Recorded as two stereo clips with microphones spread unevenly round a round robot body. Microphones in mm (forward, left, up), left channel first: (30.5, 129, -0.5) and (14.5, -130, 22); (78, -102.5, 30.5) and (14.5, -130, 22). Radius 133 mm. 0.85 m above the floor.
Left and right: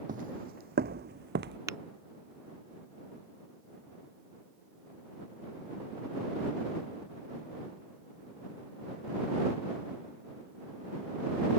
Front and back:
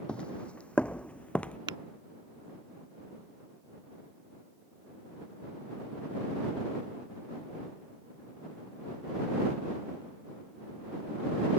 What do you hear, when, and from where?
0.1 s footsteps: 45° right
1.7 s tapping: 170° right